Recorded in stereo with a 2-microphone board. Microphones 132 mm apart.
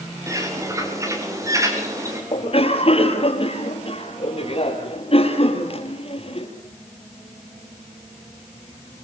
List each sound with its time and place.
0.3 s a bird: 25° right (ahead or behind), 6.5 m
2.3 s a cough: 45° left (ahead or behind), 5.5 m